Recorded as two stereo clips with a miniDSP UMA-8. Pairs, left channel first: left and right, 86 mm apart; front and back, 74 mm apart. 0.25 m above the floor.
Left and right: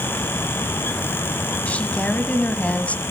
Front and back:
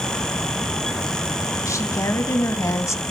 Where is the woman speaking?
20° left, 1.4 m.